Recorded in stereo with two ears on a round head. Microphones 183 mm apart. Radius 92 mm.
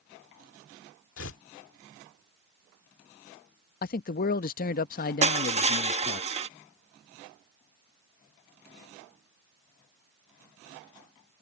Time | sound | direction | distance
1.2 | tearing paper | 70° left (ahead or behind) | ?
3.8 | a man speaking | 45° left (ahead or behind) | ?
5.2 | crushing | 35° right (ahead or behind) | ?